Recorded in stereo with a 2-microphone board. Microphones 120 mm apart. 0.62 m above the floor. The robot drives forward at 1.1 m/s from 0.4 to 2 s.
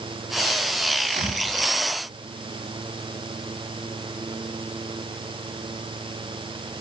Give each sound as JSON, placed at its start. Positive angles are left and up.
{"t": 1.1, "sound": "a thud", "side_deg": -85, "distance_m": 8.5}